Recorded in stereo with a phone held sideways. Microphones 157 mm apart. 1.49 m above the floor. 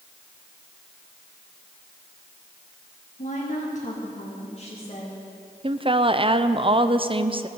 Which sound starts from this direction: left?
A woman speaking, at 3.2 s.